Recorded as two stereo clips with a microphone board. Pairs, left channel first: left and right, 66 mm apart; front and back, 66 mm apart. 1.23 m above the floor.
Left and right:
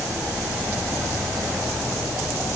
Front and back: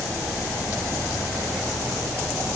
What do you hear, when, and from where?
Only background noise.